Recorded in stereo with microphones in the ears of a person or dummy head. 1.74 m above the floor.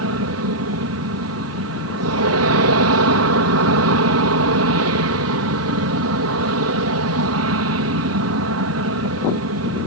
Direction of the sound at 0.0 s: 70° right (ahead or behind).